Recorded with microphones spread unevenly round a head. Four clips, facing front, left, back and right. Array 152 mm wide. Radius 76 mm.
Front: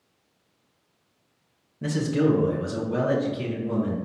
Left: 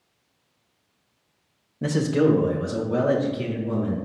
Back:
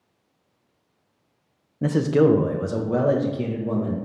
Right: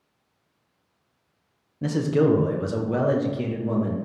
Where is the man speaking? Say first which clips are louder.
Left 1 dB, back 5 dB; 160° left, 0.7 m; by 3.9 s 150° right, 1.9 m.